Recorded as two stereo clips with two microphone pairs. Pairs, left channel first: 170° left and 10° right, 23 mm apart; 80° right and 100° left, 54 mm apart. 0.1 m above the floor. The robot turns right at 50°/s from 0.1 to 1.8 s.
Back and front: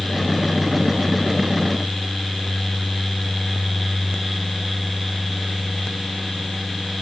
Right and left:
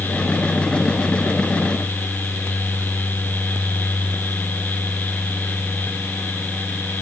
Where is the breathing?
No breathing in this recording.